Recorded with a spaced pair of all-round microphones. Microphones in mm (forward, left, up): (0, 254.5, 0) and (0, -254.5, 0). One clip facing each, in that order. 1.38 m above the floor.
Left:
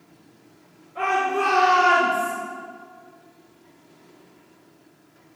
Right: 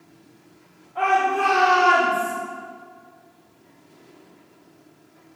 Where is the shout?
10° right (ahead or behind), 4 m; by 2.3 s 10° left (ahead or behind), 4 m.